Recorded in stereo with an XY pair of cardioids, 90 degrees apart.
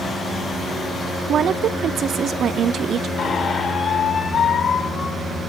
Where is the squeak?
60° left, 5.5 m.